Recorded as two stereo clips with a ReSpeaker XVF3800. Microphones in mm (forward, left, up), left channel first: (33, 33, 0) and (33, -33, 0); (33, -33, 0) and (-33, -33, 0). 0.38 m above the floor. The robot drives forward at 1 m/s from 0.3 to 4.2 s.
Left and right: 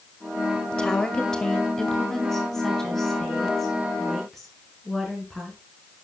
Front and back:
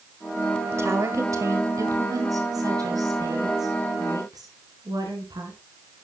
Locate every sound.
0.7 s a woman speaking: 160° left, 1.6 m; by 5.6 s 175° left, 4.5 m